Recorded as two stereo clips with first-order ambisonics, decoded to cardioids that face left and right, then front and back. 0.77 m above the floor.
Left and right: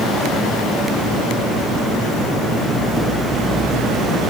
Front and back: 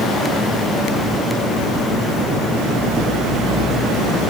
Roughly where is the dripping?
I don't hear dripping.